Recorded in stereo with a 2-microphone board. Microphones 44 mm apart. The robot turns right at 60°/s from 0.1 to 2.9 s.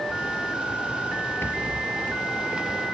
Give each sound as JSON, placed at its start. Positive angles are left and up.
{"t": 1.4, "sound": "a rattle", "azimuth_deg": 95, "distance_m": 4.5}